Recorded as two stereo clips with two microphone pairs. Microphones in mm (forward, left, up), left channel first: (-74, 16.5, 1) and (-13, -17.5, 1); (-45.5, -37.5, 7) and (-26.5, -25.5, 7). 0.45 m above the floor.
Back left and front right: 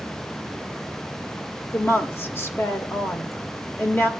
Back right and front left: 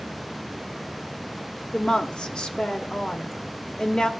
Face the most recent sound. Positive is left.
turn(degrees=-165)